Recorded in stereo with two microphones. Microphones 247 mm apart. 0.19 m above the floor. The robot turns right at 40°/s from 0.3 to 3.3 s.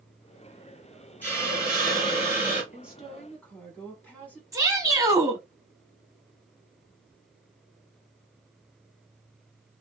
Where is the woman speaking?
10° right (ahead or behind), 1.5 m; by 4.4 s 5° left (ahead or behind), 1.5 m.